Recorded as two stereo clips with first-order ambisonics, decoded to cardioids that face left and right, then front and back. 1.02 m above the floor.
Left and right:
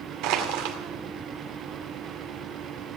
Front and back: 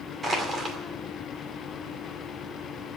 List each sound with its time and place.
0.2 s crushing: 105° right, 2.5 m